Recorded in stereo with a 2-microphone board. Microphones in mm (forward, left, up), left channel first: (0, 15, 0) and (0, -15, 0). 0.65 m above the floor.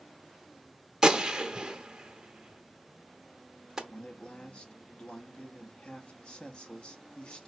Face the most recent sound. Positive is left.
turn(degrees=35)  # may be behind; listen again after turning